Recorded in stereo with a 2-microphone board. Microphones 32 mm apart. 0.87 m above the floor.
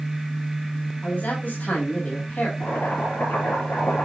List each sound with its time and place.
1.0 s a man speaking: 85° left, 5.5 m
2.6 s boiling: 85° left, 7.5 m